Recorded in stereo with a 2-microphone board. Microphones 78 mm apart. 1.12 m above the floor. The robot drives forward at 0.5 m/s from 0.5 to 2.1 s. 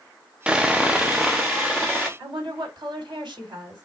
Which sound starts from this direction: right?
A woman speaking, at 2.2 s.